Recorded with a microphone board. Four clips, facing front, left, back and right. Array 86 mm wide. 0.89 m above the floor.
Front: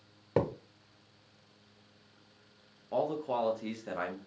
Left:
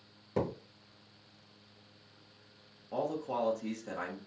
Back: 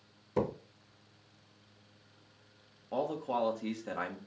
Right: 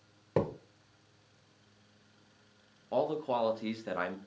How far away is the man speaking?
About 0.7 m.